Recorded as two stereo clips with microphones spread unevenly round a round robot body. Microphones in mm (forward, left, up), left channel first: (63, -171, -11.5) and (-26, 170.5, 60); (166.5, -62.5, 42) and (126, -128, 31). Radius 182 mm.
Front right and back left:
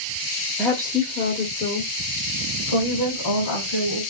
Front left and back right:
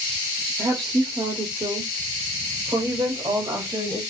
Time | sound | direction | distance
0.6 | a woman speaking | 160° right | 0.9 m